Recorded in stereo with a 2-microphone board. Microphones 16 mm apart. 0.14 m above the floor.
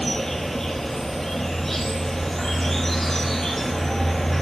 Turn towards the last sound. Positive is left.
turn(degrees=20)  # may be behind; listen again after turning